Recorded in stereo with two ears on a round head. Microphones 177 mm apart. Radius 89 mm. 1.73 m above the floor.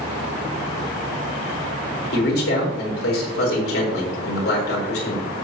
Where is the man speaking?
70° left (ahead or behind), 4.5 m.